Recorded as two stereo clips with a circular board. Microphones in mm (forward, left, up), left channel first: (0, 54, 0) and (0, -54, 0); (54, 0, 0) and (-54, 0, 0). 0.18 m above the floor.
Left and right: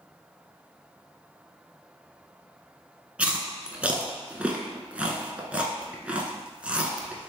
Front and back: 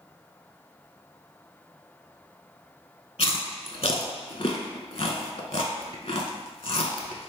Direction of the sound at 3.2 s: 15° right.